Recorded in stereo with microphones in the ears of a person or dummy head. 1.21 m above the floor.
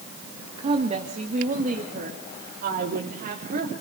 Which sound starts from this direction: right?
A woman speaking, at 0.6 s.